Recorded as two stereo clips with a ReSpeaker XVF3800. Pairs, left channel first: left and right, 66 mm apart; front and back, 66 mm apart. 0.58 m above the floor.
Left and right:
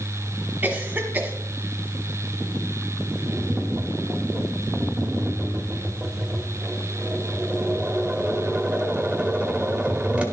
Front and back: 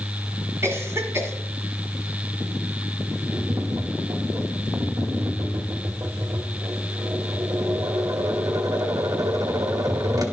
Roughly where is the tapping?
Behind.